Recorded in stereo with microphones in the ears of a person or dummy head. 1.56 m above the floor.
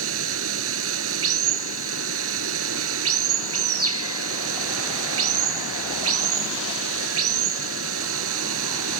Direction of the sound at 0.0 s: 80° right.